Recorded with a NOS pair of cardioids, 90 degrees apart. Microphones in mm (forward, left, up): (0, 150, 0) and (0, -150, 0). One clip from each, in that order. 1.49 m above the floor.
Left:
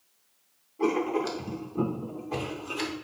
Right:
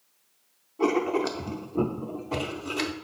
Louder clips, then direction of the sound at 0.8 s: Right 2 dB; 20° right.